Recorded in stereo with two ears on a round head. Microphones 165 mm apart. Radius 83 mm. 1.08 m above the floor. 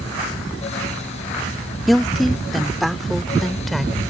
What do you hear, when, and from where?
1.9 s a woman speaking: centre (ahead or behind)